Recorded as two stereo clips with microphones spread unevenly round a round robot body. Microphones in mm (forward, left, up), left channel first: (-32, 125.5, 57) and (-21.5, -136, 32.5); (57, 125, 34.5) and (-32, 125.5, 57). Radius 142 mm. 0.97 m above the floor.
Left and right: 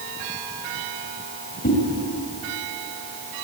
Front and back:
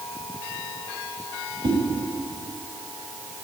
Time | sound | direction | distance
1.6 | a whoosh | 150° left | 7 m